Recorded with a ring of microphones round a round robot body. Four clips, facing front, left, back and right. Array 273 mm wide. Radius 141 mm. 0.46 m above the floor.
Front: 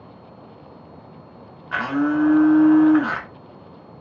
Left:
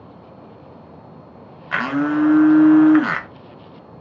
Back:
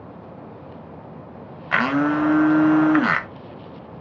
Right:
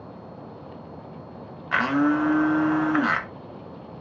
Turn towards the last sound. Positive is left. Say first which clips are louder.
# left 2 dB, back 1 dB
turn(degrees=175)